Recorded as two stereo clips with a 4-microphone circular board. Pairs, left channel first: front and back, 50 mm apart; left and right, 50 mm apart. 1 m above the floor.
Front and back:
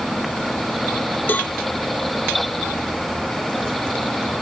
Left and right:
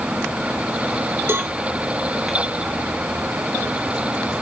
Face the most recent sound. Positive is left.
turn(degrees=-50)